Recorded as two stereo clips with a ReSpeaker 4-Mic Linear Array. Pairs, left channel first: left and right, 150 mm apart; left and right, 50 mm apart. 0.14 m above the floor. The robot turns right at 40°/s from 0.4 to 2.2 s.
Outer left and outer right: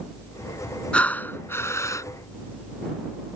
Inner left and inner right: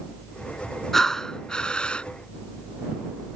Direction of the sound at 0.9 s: 10° left (ahead or behind).